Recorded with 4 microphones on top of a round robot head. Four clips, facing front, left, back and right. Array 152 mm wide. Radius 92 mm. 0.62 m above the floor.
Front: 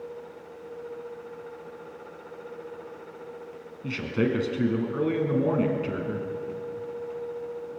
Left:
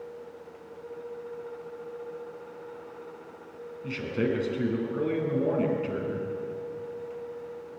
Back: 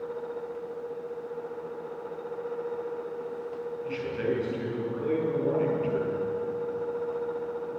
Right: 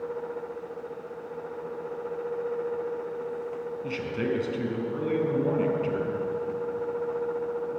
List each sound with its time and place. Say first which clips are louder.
3.8 s a man speaking: left 2 dB, front 4 dB; 10° right, 6 m